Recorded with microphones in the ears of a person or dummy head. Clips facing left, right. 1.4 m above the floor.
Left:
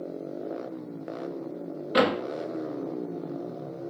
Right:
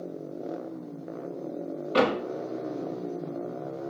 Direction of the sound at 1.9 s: 15° left (ahead or behind).